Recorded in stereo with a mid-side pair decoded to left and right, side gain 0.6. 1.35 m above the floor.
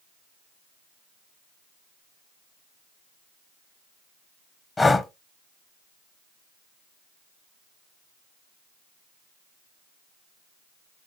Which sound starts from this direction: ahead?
Breathing, at 4.8 s.